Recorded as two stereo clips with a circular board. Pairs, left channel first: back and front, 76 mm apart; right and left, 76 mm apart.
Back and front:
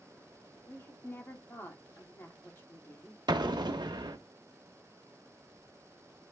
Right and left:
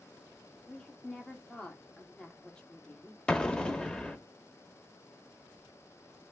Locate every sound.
0.7 s a woman speaking: 160° right, 1.4 m
3.3 s an explosion: 10° right, 0.8 m